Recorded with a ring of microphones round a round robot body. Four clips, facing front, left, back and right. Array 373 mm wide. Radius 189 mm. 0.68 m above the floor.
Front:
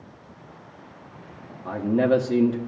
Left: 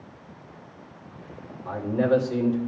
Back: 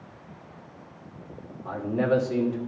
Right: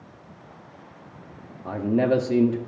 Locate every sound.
1.6 s a man speaking: 55° right, 1.2 m